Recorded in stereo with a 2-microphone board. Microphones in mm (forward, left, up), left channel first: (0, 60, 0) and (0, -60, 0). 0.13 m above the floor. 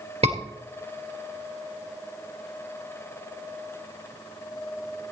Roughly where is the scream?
Right.